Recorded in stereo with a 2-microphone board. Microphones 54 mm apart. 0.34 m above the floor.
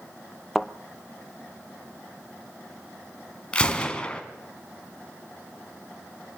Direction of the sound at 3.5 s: 20° left (ahead or behind).